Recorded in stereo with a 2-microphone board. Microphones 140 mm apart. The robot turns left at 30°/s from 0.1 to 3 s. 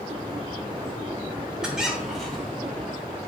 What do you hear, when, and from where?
1.6 s a squeak: 5° right (ahead or behind), 0.6 m; by 2.6 s 5° left (ahead or behind), 0.6 m